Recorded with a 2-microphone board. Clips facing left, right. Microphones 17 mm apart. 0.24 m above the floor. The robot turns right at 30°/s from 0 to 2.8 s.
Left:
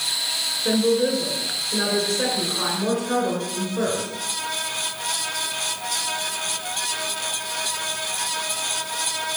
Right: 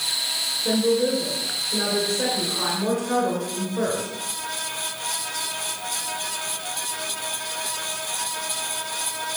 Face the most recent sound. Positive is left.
turn(degrees=170)